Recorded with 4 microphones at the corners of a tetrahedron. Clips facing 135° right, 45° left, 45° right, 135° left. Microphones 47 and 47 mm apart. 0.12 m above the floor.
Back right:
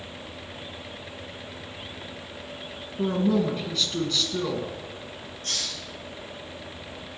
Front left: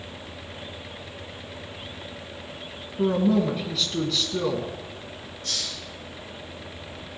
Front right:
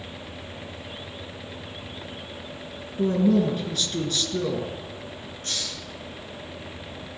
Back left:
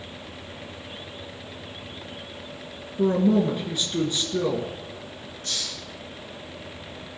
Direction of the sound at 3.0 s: 125° left.